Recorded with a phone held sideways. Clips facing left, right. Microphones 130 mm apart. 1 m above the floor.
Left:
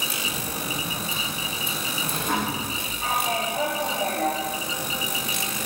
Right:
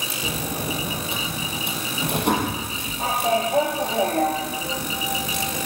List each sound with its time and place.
0.2 s a sliding door: 70° right (ahead or behind), 5 m